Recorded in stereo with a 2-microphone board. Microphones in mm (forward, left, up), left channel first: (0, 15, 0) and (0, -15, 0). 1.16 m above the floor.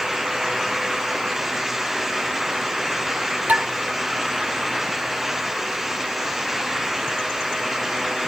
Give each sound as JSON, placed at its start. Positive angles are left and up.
{"t": 3.5, "sound": "dishes clattering", "side_deg": -70, "distance_m": 3.0}